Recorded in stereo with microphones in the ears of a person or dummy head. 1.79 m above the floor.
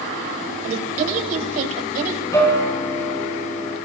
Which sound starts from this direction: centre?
A guitar, at 2.3 s.